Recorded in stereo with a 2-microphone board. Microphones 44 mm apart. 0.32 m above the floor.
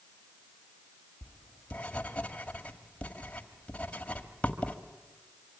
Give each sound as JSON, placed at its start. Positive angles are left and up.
{"t": 1.2, "sound": "writing", "side_deg": 30, "distance_m": 1.9}